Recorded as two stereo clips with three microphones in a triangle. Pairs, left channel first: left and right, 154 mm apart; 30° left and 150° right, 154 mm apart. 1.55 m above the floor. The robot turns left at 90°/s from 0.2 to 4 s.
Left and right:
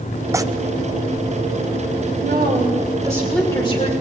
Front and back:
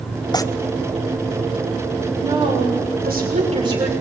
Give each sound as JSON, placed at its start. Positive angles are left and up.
{"t": 0.3, "sound": "tearing paper", "azimuth_deg": -25, "distance_m": 0.6}
{"t": 2.2, "sound": "a woman speaking", "azimuth_deg": -80, "distance_m": 6.5}